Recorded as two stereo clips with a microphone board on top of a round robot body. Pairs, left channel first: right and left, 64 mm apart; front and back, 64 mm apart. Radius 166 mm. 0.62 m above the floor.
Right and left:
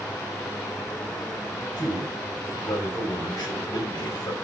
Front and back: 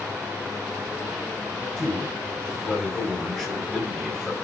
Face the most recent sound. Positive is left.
turn(degrees=-85)